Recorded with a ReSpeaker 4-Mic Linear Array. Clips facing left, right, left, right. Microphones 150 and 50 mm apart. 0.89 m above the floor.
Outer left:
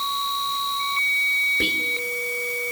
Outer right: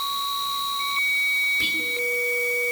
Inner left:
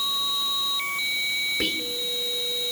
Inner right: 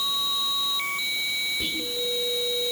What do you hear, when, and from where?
1.6 s whispering: 65° left (ahead or behind), 3 m